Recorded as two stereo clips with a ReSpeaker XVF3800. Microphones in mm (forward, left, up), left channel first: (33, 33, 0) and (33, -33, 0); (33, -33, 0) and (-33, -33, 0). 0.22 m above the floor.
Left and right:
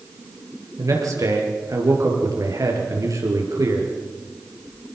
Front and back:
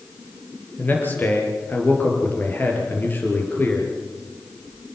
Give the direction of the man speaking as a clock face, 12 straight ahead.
2 o'clock.